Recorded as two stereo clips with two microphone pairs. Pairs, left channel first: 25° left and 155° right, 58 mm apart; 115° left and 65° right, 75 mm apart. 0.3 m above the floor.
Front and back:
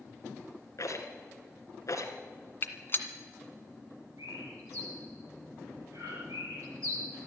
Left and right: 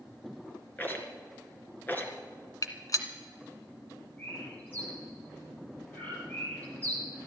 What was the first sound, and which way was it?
A rattle, 50° left.